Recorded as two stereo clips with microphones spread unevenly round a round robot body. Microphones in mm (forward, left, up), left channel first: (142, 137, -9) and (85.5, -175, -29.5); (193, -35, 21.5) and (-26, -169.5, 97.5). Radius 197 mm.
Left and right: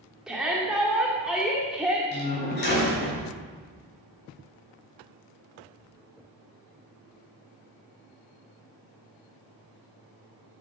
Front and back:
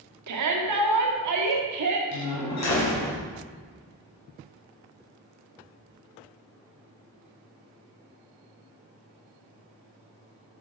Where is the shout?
170° left, 1.7 m.